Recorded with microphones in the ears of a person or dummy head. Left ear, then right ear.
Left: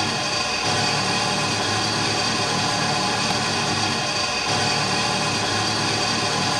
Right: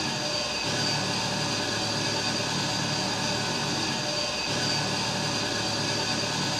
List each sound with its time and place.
0.0 s an engine running: 20° left (ahead or behind), 1.0 m